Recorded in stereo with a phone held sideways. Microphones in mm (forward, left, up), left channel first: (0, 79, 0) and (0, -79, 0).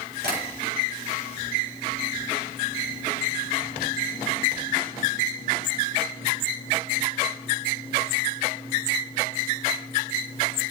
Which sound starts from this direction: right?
Tapping, at 0.2 s.